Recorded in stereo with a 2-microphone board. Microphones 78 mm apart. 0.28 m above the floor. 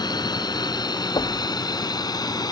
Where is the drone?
65° left (ahead or behind); by 2.5 s 60° left (ahead or behind).